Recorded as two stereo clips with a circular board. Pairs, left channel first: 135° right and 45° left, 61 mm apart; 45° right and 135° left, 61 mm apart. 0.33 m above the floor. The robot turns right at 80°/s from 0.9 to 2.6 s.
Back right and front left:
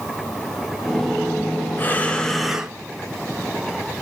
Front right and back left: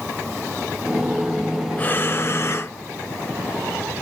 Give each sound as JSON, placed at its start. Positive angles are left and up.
{"t": 1.8, "sound": "breathing", "azimuth_deg": -95, "distance_m": 0.6}